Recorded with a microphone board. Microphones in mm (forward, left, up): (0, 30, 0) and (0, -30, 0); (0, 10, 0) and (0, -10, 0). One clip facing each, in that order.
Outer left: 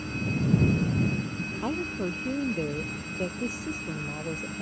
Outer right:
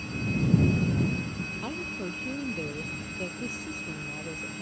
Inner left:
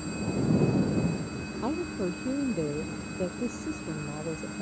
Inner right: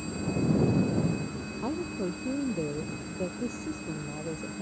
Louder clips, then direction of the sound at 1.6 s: Outer left 7 dB, inner left 2 dB; 15° left (ahead or behind).